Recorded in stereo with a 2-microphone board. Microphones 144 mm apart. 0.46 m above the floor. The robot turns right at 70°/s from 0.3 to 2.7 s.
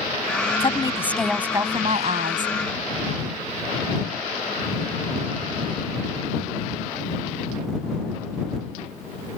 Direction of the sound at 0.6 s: 135° left.